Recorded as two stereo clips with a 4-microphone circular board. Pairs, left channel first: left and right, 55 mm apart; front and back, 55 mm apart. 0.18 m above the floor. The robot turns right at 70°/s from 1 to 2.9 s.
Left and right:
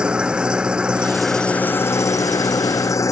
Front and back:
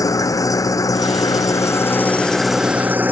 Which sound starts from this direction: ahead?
An engine running, at 0.0 s.